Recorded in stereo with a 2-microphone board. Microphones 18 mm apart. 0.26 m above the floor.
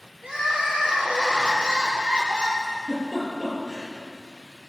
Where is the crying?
80° right, 7 m.